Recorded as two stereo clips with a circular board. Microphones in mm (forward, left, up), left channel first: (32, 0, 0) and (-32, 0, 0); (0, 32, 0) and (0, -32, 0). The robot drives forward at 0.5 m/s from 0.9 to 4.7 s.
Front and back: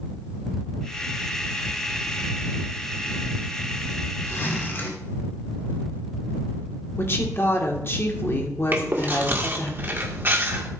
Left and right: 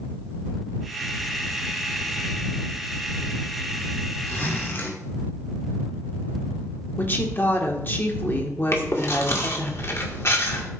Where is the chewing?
125° left, 2.0 m.